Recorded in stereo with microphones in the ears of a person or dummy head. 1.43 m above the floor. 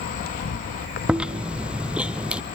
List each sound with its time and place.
0.0 s an insect: 45° left (ahead or behind), 1.0 m
1.1 s chewing: 5° right (ahead or behind), 0.9 m